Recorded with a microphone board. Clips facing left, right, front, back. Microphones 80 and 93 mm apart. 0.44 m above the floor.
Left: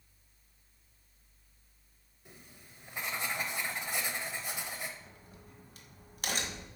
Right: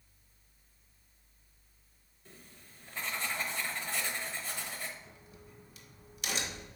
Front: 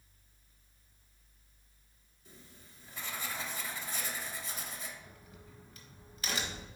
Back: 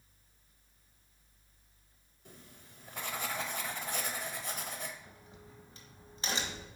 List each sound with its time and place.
2.2 s writing: 160° left, 0.8 m
5.0 s a crack: 120° left, 1.2 m